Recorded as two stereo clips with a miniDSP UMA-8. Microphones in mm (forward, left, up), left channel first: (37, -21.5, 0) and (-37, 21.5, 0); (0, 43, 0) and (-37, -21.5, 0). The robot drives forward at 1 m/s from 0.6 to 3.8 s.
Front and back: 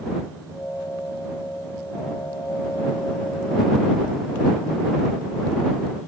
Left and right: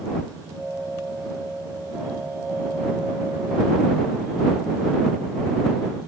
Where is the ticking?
160° left.